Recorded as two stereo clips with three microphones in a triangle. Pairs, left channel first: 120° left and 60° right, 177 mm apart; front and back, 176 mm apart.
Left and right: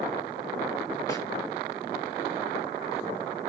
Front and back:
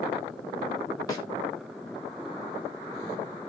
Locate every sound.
1.1 s a snare drum: 60° left, 1.7 m